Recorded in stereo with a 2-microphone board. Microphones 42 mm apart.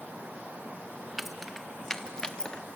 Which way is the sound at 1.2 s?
5° right (ahead or behind).